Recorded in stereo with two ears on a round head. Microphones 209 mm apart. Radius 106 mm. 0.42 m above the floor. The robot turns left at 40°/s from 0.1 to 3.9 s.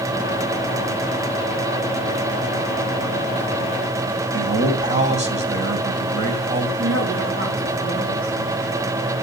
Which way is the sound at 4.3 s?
30° right (ahead or behind).